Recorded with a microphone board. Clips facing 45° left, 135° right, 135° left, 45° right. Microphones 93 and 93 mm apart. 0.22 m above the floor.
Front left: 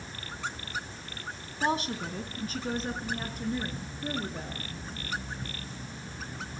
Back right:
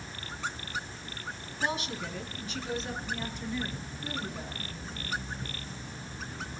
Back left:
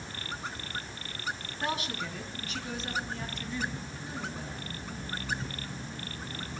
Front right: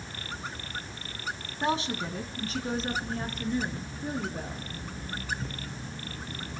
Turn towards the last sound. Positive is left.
turn(degrees=0)